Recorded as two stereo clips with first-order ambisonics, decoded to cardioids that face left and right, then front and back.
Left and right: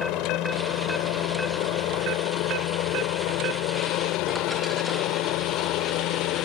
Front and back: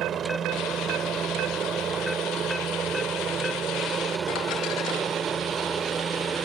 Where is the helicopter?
120° left; by 6.5 s 115° left.